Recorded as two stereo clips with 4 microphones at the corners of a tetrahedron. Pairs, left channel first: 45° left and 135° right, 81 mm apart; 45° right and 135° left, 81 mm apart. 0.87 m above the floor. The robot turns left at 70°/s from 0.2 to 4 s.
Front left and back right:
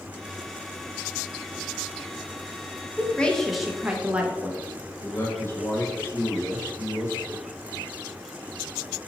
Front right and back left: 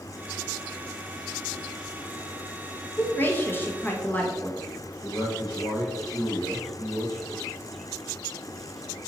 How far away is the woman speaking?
About 0.6 m.